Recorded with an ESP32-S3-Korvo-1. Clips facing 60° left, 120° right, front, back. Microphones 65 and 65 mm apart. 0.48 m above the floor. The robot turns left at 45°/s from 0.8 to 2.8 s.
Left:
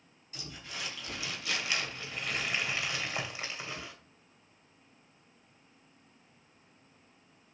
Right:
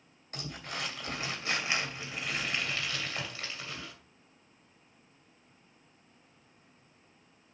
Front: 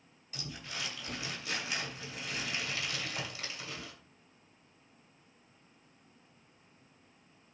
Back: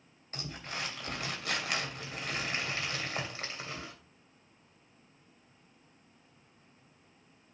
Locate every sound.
0.3 s crumpling: 140° right, 3 m; by 3.9 s 130° left, 3 m